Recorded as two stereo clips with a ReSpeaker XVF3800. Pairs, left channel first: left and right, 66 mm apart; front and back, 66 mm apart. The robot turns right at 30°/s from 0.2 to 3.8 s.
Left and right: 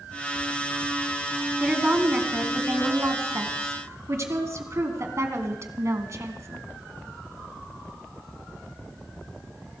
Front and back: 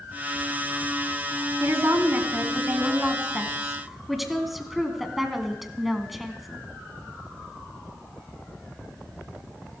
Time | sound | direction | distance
1.6 | a woman speaking | 160° right | 2 m